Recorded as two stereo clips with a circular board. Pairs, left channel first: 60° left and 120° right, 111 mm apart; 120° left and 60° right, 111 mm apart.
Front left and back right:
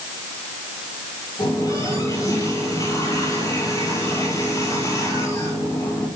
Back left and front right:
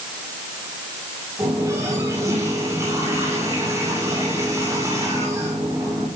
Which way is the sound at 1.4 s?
Straight ahead.